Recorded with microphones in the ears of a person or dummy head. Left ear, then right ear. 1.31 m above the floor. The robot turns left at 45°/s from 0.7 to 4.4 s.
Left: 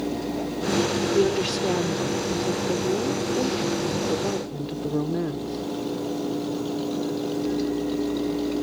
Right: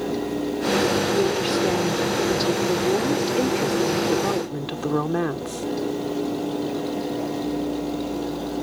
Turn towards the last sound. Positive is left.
turn(degrees=-135)